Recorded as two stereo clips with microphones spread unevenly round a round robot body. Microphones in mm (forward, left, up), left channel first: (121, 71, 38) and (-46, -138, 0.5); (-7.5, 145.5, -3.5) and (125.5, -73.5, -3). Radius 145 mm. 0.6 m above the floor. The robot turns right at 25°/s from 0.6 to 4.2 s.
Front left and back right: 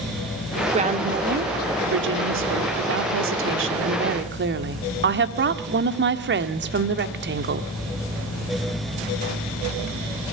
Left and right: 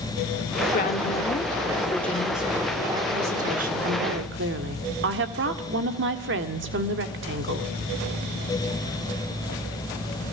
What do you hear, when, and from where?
0.7 s a woman speaking: 175° left, 1.6 m; by 7.7 s 100° right, 1.6 m